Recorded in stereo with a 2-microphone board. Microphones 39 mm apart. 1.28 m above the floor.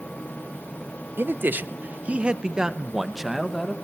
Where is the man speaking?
65° right (ahead or behind), 1.3 m; by 3.8 s 5° left (ahead or behind), 2.0 m.